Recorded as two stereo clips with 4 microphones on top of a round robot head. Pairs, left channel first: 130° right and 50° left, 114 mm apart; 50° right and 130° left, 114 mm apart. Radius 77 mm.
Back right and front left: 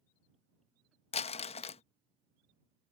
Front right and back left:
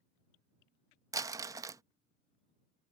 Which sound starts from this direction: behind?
Crumpling, at 1.1 s.